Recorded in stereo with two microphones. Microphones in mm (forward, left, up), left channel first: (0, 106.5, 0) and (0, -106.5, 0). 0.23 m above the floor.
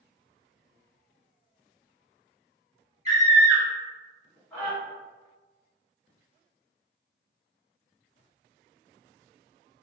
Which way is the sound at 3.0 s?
30° right (ahead or behind).